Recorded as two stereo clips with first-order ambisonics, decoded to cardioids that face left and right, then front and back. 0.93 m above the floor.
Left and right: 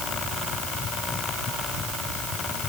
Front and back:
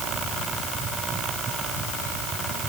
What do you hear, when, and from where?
Only background noise.